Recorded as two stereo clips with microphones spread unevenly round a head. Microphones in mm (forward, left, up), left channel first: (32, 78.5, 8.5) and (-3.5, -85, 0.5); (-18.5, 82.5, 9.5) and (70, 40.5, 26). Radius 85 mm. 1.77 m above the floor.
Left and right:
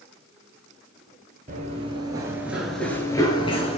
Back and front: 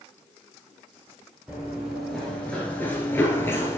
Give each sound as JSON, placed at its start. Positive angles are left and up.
{"t": 1.5, "sound": "running footsteps", "azimuth_deg": -95, "distance_m": 2.0}